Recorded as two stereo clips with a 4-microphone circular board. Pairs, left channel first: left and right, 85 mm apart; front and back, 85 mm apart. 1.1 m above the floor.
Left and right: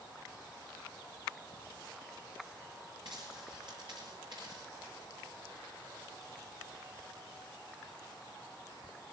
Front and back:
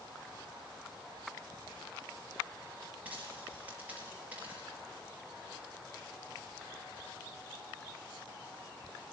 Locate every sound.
3.0 s a dropped coin: 110° right, 7 m